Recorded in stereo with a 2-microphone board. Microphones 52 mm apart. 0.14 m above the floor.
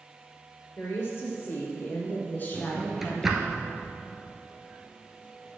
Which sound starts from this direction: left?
A woman speaking, at 0.8 s.